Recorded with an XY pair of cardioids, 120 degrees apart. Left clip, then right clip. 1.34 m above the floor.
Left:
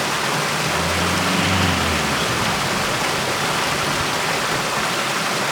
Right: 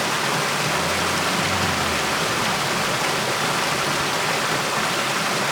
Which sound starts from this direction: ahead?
Running water, at 0.0 s.